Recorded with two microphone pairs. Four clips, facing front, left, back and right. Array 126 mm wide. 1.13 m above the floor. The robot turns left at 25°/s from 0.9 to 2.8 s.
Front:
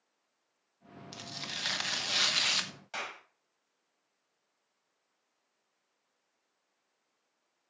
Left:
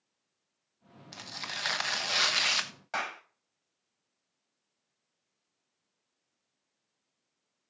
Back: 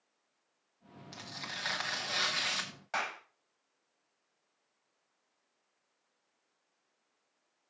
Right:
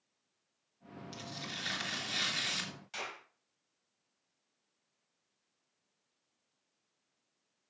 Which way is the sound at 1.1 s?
105° left.